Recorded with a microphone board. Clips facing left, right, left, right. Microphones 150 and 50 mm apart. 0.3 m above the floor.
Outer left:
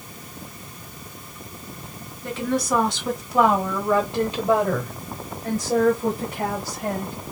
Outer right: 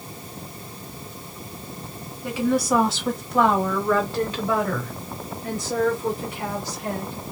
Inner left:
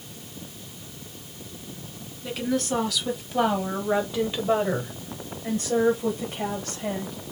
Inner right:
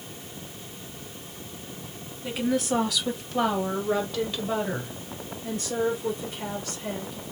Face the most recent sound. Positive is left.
turn(degrees=45)  # may be behind; listen again after turning